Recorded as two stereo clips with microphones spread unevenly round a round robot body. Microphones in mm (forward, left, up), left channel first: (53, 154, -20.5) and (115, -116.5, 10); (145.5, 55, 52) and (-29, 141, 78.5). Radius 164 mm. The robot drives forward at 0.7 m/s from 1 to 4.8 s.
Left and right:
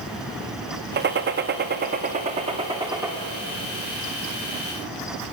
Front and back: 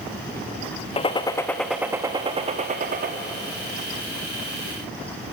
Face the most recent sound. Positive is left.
turn(degrees=-170)